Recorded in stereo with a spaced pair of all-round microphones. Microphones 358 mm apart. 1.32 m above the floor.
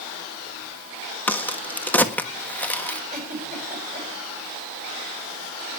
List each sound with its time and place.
1.3 s a crack: 5° left (ahead or behind), 1.4 m
3.1 s a giggle: 20° right (ahead or behind), 8.5 m